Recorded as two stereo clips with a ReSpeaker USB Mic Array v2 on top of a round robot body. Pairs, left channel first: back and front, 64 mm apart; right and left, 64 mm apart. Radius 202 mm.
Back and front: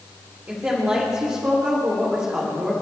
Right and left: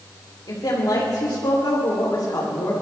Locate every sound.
0.5 s a woman speaking: 70° right, 3.5 m